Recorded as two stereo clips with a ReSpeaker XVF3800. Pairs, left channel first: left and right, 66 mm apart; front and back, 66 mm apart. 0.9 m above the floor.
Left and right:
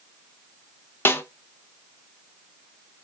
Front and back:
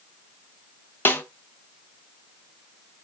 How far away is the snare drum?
About 0.6 m.